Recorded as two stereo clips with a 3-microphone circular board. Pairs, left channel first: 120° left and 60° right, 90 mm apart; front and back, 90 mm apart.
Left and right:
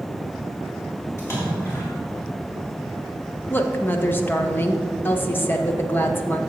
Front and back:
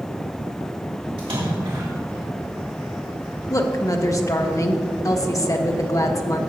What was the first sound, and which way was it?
A splash, 175° left.